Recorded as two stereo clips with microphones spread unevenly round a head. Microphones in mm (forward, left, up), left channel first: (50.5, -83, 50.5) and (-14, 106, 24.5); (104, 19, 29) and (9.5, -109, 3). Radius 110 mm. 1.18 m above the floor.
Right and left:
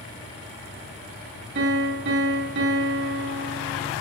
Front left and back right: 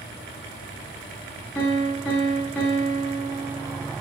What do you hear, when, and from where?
1.6 s a piano: 140° left, 2 m